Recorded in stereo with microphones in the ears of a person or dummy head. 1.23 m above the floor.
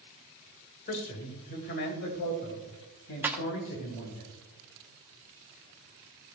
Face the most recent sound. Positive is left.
turn(degrees=-10)  # may be behind; listen again after turning